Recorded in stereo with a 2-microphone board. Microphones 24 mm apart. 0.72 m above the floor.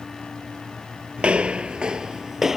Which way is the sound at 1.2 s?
50° right (ahead or behind).